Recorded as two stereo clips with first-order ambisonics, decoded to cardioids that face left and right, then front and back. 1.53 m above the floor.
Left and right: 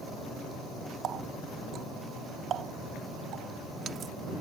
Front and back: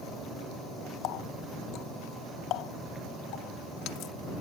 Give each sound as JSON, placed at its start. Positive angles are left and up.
{"t": 1.0, "sound": "a running tap", "azimuth_deg": -35}